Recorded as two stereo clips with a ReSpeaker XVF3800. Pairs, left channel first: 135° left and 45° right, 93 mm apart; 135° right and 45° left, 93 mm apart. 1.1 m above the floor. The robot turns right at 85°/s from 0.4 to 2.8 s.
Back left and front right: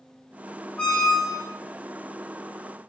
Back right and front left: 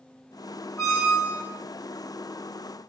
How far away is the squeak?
About 0.9 m.